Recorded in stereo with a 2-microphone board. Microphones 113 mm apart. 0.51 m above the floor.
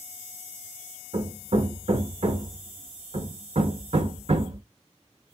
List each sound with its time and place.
1.1 s hammering: 60° right (ahead or behind), 1.0 m